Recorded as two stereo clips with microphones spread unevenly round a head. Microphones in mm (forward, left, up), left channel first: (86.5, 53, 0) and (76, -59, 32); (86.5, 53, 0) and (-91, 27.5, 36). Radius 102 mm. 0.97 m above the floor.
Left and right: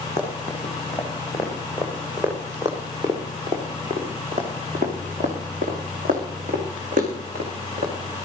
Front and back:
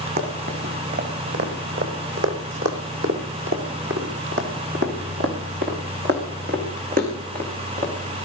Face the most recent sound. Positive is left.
turn(degrees=-120)